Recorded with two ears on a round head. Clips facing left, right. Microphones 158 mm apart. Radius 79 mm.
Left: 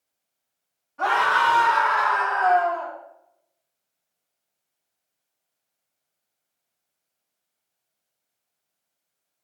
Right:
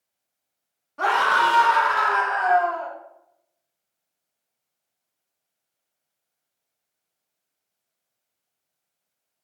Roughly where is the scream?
Right.